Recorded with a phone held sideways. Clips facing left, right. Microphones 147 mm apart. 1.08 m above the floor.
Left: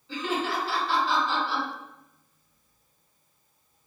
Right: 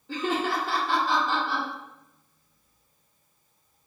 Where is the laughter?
50° right (ahead or behind), 0.9 m.